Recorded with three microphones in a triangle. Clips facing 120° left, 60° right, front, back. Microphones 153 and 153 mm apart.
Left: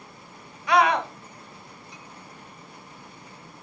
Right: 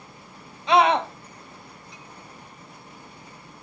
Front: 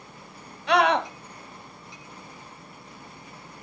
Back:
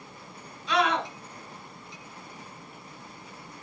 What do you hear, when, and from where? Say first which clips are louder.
0.7 s a scream: right 2 dB, front 5 dB; 5° left, 2.5 m